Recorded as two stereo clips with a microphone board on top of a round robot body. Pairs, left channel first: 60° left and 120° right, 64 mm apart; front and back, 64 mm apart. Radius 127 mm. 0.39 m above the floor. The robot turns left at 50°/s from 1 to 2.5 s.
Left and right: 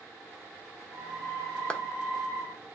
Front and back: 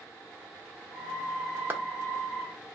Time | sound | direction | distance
1.7 | a clap | 130° left | 1.1 m